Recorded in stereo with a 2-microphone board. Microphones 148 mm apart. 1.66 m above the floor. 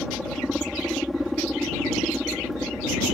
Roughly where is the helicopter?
Centre.